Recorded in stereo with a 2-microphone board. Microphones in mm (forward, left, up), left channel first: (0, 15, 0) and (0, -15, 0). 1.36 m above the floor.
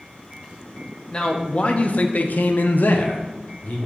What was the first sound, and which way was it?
A man speaking, 25° left (ahead or behind).